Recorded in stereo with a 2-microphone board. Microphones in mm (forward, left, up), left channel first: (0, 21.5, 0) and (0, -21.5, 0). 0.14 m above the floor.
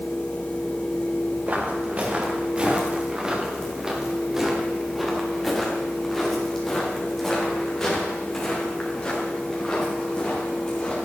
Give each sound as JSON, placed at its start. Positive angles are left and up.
{"t": 1.5, "sound": "footsteps", "side_deg": -40, "distance_m": 3.5}